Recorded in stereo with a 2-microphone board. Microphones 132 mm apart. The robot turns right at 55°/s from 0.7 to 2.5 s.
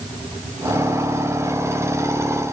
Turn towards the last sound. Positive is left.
No sound to turn to.